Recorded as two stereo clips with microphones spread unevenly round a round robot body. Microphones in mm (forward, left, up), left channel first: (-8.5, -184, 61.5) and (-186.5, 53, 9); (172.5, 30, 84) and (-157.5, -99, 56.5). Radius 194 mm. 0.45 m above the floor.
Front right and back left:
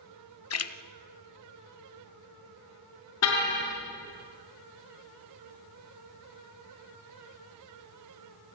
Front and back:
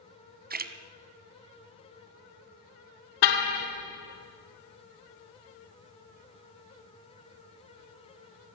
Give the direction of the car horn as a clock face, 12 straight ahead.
12 o'clock.